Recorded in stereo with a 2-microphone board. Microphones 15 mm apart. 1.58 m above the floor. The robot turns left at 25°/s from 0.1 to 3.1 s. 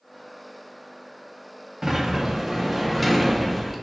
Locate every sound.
1.8 s a sliding door: 145° right, 0.5 m; by 3.8 s straight behind, 0.5 m